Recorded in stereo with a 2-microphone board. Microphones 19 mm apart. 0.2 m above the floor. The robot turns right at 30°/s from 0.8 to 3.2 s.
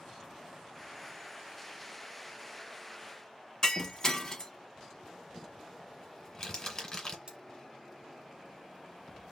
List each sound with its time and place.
3.6 s breaking glass: 30° left (ahead or behind), 0.7 m
5.3 s crumpling: 30° left (ahead or behind), 1.3 m
7.3 s cutlery clinking: 45° right (ahead or behind), 1.0 m